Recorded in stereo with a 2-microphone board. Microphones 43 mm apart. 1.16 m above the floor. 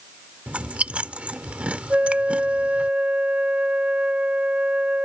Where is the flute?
30° right (ahead or behind).